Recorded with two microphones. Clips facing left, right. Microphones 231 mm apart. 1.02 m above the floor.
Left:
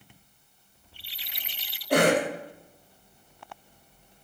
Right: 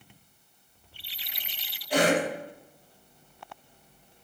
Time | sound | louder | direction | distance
1.9 | a cough | left 2 dB | 60° left (ahead or behind) | 1.2 m